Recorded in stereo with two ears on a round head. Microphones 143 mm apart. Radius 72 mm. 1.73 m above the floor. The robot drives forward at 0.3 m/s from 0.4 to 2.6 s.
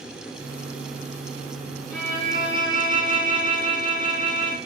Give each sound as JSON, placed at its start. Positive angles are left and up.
{"t": 1.9, "sound": "a violin", "side_deg": -5, "distance_m": 1.9}